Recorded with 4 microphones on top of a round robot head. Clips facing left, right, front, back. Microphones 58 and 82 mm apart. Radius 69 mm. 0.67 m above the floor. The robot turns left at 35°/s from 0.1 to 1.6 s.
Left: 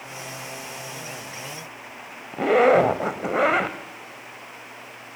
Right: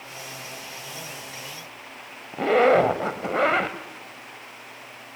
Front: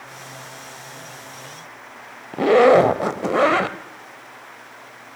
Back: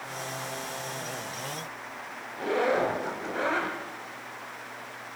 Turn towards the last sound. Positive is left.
turn(degrees=5)